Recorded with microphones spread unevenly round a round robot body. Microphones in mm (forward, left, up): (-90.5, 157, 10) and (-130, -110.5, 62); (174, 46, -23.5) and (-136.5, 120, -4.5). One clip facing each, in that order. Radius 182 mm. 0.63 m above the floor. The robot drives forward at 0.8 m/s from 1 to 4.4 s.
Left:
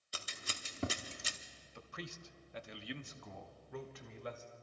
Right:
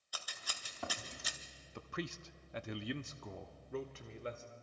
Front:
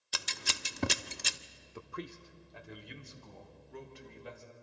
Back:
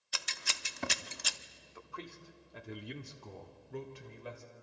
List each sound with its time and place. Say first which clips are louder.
0.1 s scissors: left 4 dB, front 4 dB; 25° left, 0.7 m; by 1.4 s 45° left, 0.5 m
1.8 s a man speaking: right 6 dB, front 5 dB; 60° right, 0.8 m; by 4.4 s 165° right, 1.9 m